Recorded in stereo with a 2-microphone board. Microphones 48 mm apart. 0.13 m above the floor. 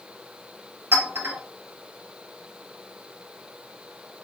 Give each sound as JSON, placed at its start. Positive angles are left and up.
{"t": 0.9, "sound": "a clink", "side_deg": -60, "distance_m": 1.6}